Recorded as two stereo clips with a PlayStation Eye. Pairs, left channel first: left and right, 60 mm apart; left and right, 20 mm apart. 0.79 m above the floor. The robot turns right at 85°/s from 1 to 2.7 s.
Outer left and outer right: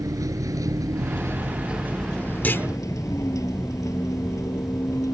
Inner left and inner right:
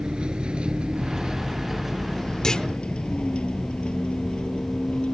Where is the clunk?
30° left (ahead or behind); by 2.7 s 55° left (ahead or behind).